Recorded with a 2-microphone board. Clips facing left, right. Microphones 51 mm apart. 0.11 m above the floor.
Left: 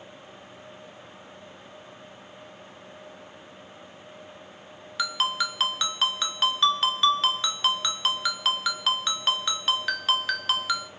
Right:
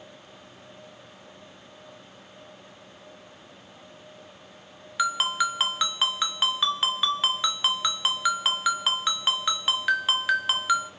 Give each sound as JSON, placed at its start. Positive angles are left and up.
{"t": 5.0, "sound": "a ringtone", "side_deg": -10, "distance_m": 0.6}